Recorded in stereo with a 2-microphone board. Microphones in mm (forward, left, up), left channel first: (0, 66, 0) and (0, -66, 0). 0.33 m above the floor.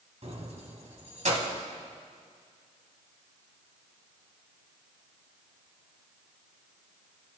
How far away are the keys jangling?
About 1.8 m.